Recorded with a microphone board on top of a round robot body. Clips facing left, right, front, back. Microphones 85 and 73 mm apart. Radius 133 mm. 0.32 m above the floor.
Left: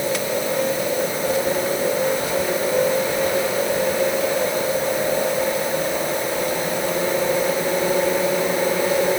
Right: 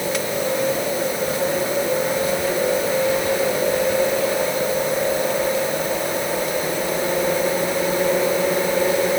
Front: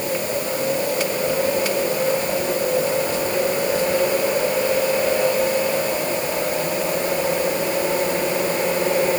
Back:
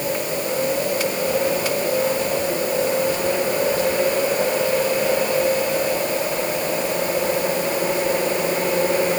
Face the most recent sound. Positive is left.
No sound to turn to.